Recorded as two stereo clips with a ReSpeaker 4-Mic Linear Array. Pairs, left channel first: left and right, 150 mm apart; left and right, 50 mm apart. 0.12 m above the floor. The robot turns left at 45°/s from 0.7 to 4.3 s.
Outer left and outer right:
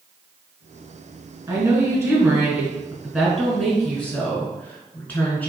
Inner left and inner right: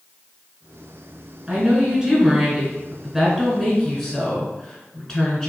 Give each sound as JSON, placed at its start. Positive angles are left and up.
{"t": 1.5, "sound": "a woman speaking", "side_deg": -20, "distance_m": 1.3}